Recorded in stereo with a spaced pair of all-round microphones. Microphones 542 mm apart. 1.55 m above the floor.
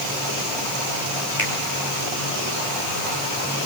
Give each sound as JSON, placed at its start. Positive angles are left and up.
{"t": 1.4, "sound": "a finger snap", "side_deg": 35, "distance_m": 5.0}